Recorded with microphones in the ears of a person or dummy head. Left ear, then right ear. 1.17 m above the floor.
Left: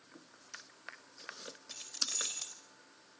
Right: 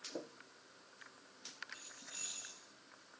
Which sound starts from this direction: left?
Keys jangling, at 1.7 s.